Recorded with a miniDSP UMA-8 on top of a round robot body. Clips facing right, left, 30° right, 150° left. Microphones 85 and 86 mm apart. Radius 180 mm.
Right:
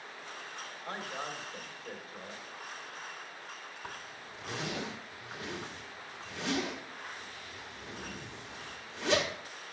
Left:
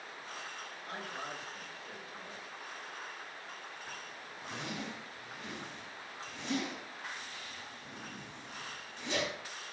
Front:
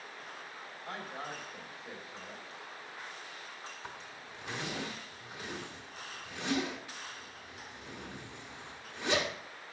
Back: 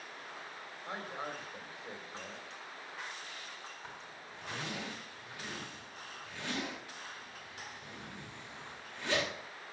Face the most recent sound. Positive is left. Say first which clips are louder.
# right 1 dB, front 2 dB
turn(degrees=-100)